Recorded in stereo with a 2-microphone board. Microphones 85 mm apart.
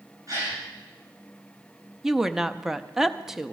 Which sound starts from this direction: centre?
A woman speaking, at 2.0 s.